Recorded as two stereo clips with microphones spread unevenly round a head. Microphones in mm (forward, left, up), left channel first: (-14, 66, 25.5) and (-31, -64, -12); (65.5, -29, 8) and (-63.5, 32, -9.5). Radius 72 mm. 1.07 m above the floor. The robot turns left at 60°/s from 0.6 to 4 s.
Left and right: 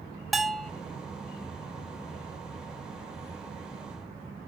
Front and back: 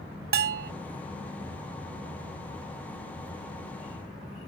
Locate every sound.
0.3 s a bell: 165° left, 0.7 m; by 0.7 s 155° left, 0.7 m